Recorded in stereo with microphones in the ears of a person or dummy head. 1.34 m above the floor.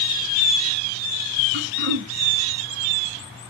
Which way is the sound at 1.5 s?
55° right (ahead or behind).